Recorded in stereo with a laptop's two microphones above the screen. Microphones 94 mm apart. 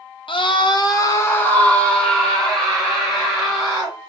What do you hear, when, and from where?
0.3 s a scream: 65° left (ahead or behind), 0.6 m; by 4.0 s 5° right (ahead or behind), 2.5 m